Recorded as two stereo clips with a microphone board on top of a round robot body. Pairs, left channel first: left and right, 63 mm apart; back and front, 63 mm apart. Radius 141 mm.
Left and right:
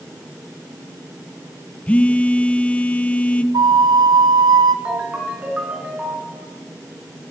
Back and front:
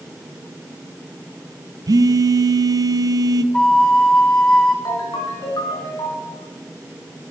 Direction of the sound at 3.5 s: 100° right.